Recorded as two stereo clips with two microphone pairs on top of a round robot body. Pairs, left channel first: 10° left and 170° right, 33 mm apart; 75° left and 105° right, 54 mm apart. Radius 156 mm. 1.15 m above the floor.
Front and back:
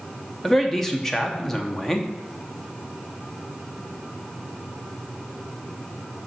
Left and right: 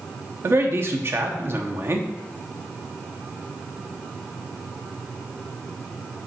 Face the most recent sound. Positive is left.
turn(degrees=-65)